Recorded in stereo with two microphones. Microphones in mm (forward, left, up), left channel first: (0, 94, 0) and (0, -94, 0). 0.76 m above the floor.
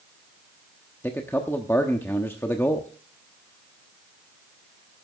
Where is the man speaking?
10° left (ahead or behind), 1.0 m.